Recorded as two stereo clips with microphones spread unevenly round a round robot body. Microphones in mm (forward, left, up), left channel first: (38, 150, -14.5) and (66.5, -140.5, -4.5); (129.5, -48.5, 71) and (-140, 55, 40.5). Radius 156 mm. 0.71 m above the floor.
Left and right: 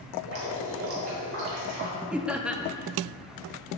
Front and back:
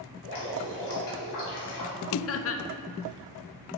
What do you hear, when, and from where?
0.2 s dripping: 45° right, 3 m
2.1 s laughter: 5° left, 0.7 m